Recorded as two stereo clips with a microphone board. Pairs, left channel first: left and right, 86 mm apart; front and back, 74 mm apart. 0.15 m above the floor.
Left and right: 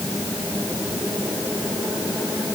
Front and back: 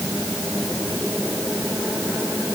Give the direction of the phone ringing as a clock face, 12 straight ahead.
I don't hear a phone ringing.